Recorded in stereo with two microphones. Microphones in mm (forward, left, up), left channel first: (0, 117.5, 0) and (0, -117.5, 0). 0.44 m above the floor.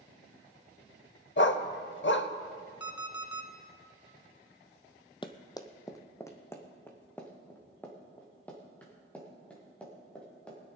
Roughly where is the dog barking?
Left.